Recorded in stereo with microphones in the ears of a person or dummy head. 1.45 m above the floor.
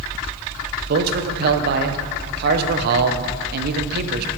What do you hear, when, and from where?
0.9 s a man speaking: 55° right (ahead or behind), 0.8 m